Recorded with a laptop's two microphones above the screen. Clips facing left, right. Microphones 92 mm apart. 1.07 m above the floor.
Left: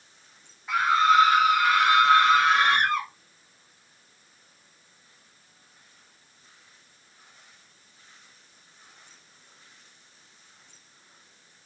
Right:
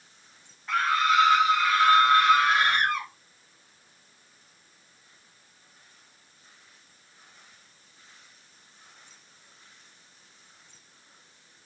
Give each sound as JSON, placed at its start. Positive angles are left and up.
{"t": 0.7, "sound": "a scream", "side_deg": 5, "distance_m": 0.8}